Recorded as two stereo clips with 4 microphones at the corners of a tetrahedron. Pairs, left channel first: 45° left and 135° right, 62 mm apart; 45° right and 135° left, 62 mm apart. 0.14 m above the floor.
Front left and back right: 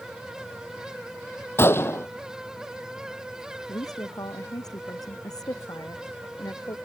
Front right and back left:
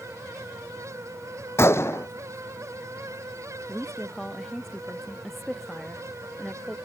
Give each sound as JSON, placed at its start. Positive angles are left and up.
{"t": 1.6, "sound": "a gunshot", "azimuth_deg": 0}
{"t": 3.7, "sound": "a woman speaking", "azimuth_deg": 40}